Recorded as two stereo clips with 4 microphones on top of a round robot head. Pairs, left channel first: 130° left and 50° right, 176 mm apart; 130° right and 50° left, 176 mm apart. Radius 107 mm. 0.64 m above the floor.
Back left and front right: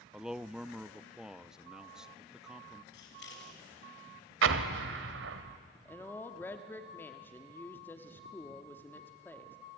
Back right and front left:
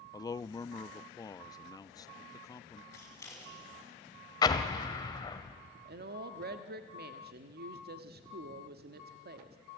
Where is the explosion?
65° right, 1.2 m.